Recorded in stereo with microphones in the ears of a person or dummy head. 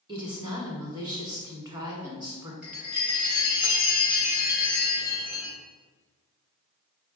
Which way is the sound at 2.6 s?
5° right (ahead or behind).